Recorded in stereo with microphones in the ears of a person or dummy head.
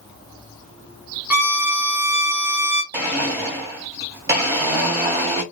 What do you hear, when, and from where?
1.3 s a violin: 10° right (ahead or behind), 0.9 m
2.9 s a blender: 20° right (ahead or behind), 1.9 m